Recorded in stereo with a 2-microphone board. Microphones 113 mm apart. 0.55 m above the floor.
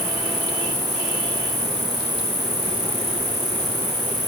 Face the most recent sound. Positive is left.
turn(degrees=60)  # may be behind; listen again after turning